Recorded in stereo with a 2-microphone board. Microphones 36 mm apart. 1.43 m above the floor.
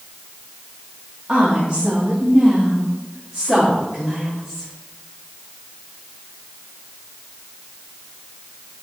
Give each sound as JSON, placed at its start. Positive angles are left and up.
{"t": 1.3, "sound": "a woman speaking", "side_deg": -30, "distance_m": 1.8}